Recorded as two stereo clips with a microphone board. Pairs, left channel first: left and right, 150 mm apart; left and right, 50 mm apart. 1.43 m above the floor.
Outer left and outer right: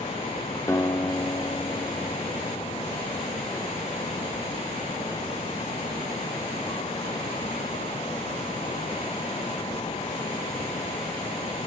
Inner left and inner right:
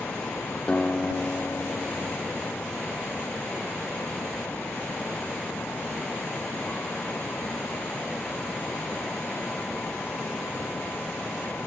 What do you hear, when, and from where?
0.7 s a guitar: 20° left (ahead or behind), 0.6 m